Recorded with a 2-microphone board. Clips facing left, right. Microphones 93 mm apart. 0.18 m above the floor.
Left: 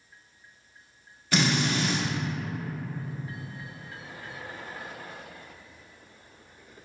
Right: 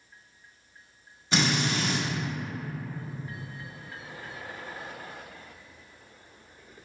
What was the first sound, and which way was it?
A drill, 25° right (ahead or behind).